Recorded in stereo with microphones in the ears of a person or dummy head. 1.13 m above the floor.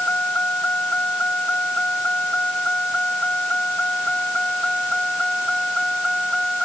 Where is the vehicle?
15° left (ahead or behind); by 6.6 s 5° left (ahead or behind).